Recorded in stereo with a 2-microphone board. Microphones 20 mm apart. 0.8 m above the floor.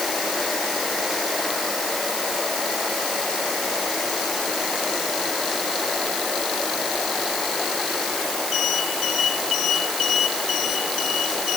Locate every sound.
Only background noise.